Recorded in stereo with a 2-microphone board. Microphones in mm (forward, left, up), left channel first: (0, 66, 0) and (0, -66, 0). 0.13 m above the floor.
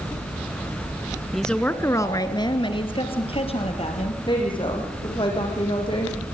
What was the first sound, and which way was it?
A woman speaking, centre (ahead or behind).